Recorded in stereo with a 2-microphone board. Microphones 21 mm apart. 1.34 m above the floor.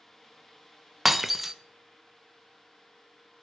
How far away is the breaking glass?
About 0.5 m.